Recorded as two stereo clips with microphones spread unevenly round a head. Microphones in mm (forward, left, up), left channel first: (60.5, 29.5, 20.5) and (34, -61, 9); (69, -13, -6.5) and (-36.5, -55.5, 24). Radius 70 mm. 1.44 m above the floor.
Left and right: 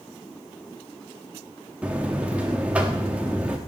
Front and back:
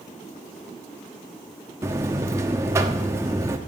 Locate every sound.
1.8 s a buzzer: 170° left, 1.0 m